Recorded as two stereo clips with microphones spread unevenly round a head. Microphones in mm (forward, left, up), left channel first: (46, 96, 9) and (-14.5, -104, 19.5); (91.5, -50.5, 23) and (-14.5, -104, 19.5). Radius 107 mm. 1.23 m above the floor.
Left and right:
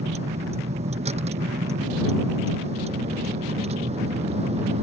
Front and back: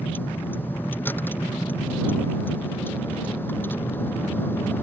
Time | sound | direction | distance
0.0 | a vehicle | 50° right | ?